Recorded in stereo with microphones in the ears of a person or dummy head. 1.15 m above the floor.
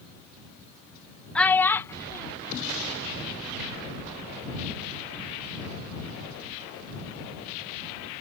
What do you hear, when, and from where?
1.4 s a child speaking: 5° left (ahead or behind); by 3.6 s 25° left (ahead or behind)